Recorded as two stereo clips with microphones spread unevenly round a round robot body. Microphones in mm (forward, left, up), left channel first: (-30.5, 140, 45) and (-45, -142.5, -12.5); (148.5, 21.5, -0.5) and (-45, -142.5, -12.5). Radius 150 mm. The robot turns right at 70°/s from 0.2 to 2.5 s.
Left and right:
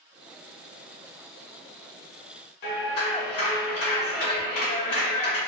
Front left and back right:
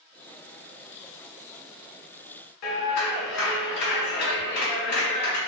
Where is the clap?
40° left, 1.9 m.